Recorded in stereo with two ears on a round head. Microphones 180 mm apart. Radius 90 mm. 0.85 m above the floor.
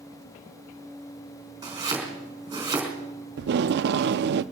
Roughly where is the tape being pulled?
Right.